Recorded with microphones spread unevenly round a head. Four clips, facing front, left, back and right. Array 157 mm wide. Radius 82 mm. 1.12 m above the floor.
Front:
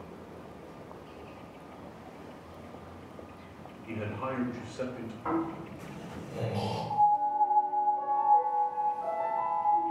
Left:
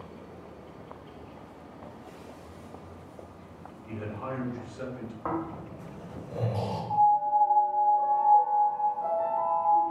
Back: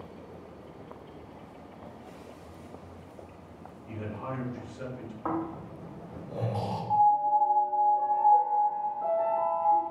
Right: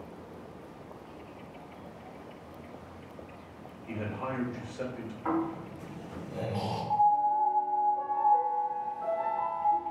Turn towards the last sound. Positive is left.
turn(degrees=-175)